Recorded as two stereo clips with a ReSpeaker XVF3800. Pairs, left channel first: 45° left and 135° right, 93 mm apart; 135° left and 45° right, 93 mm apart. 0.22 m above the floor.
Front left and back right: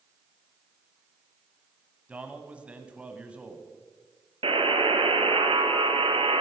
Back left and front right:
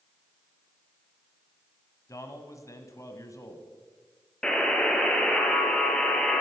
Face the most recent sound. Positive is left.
turn(degrees=-145)